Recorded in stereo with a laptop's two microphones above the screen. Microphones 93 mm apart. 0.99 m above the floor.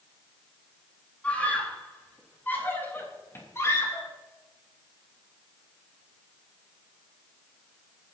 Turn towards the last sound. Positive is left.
turn(degrees=35)  # may be behind; listen again after turning